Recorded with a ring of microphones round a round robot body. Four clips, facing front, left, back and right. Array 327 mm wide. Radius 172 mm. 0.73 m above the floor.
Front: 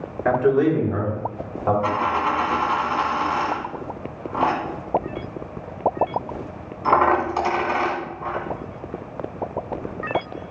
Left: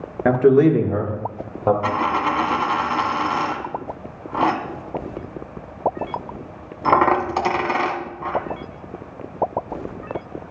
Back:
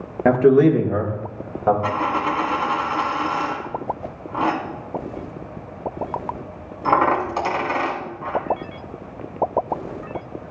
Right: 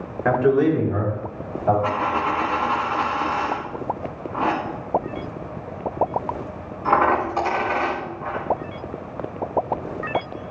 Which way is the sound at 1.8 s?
90° left.